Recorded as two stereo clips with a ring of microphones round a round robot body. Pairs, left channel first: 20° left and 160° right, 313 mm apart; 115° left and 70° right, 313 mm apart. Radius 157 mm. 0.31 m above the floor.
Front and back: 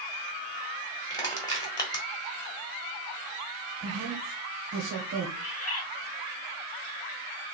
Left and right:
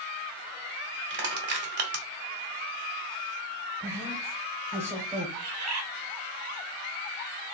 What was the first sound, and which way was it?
Crushing, 45° right.